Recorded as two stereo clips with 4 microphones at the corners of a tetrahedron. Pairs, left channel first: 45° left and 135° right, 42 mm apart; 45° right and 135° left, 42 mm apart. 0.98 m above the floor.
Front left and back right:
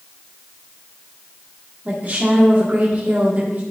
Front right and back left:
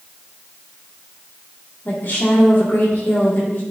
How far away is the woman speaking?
About 1.9 m.